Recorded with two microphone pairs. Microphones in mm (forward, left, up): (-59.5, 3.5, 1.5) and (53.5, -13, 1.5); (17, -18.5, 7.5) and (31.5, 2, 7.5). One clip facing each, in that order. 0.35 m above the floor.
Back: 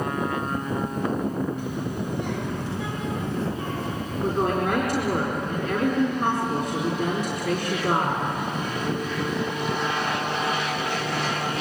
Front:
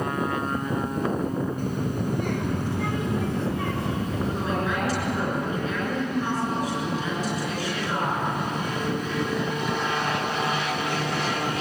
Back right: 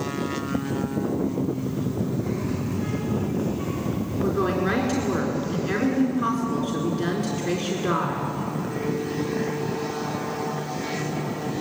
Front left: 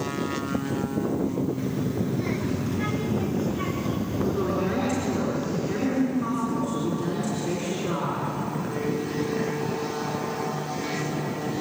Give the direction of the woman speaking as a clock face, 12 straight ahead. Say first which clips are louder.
Back 6 dB, back right 3 dB; 5 o'clock.